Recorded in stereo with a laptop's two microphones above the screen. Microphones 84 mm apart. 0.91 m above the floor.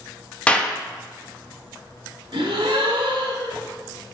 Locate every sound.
0.5 s a clap: 15° left (ahead or behind), 0.5 m
2.3 s a gasp: 85° right, 1.3 m